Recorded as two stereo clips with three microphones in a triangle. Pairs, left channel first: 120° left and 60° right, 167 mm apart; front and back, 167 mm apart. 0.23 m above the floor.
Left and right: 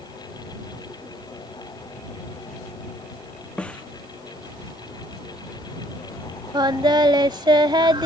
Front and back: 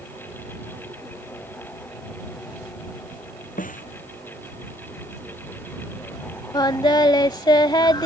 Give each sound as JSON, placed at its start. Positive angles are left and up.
{"t": 3.6, "sound": "a snare drum", "azimuth_deg": 35}
{"t": 6.5, "sound": "singing", "azimuth_deg": -30}